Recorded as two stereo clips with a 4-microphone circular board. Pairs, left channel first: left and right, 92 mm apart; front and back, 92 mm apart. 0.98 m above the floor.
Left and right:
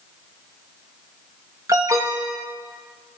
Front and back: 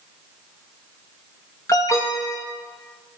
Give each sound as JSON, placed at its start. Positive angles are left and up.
{"t": 1.7, "sound": "an alarm", "azimuth_deg": -45, "distance_m": 1.8}